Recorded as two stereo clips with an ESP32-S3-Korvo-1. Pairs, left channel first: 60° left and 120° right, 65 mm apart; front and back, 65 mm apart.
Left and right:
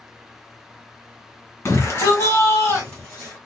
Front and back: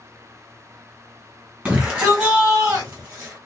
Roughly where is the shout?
Behind left.